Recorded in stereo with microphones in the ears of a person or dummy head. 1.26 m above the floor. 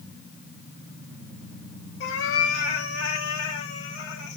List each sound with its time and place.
2.0 s a cat meowing: 60° left (ahead or behind), 1.9 m; by 4.4 s 70° left (ahead or behind), 3.5 m